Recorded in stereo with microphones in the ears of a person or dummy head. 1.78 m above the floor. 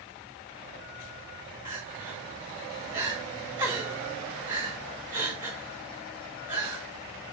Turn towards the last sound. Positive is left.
turn(degrees=-20)  # may be behind; listen again after turning